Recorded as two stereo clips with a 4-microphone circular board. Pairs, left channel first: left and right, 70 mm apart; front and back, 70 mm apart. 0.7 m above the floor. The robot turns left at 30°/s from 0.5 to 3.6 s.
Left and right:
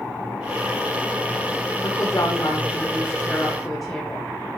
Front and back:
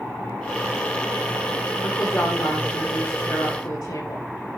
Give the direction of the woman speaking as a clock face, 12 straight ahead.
10 o'clock.